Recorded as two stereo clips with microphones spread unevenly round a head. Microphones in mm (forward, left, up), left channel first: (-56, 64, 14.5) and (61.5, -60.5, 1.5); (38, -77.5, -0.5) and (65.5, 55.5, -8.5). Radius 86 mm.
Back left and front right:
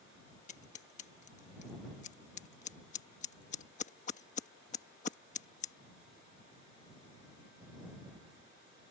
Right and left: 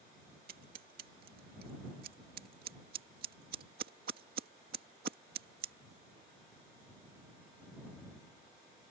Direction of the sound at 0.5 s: 85° left.